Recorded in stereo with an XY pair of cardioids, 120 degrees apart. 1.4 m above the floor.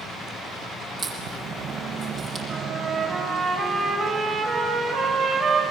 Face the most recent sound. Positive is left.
turn(degrees=-35)